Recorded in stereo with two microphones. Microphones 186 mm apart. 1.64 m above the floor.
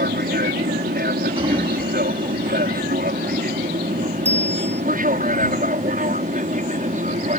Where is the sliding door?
30° right (ahead or behind).